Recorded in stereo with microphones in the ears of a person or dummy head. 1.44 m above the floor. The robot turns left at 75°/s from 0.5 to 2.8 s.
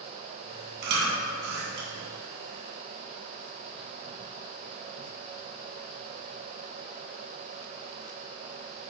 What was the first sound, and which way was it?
Chewing, 50° right (ahead or behind).